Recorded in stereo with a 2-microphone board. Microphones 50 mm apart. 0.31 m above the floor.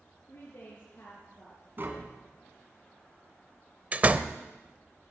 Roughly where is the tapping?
Right.